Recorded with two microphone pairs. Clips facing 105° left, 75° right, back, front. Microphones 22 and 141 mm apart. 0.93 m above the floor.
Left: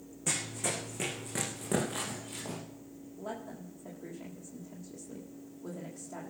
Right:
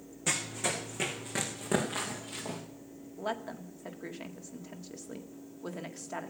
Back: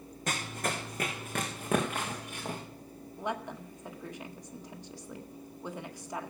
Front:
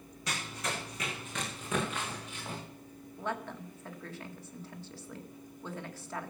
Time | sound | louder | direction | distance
0.3 | running footsteps | right 2 dB, back 4 dB | 145° right | 3 m
3.2 | a woman speaking | right 5 dB, back 1 dB | 105° right | 1.7 m